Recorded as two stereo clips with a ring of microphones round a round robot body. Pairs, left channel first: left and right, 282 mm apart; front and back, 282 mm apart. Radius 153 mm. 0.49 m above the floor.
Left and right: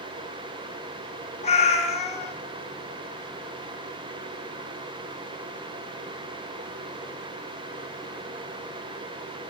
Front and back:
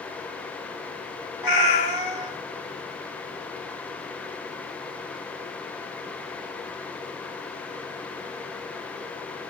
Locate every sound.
1.4 s a cat meowing: 20° left, 1.4 m